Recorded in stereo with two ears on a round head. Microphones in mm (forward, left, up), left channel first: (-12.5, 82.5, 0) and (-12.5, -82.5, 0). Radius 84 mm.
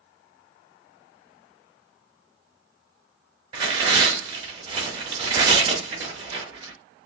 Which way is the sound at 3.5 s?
25° right (ahead or behind).